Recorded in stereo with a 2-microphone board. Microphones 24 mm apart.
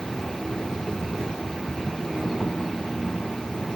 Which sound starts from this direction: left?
An insect, at 0.0 s.